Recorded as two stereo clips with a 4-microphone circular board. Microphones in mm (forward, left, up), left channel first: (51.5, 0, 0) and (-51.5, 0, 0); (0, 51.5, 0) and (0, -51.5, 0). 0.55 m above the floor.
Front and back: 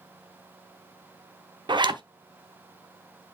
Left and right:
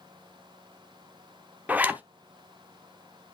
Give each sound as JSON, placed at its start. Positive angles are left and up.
{"t": 1.7, "sound": "a zipper", "azimuth_deg": -160, "distance_m": 0.8}